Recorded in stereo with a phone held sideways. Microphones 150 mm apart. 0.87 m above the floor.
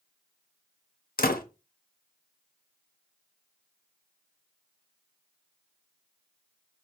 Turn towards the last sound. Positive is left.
turn(degrees=80)